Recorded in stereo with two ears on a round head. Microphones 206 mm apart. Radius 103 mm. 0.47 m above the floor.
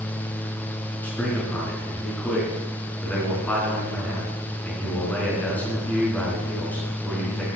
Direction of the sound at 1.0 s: 5° left (ahead or behind).